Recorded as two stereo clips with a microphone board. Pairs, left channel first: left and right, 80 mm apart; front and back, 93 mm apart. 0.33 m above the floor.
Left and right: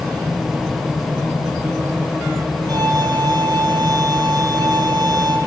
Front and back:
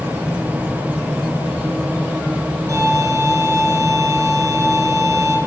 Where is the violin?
125° right, 7.5 m.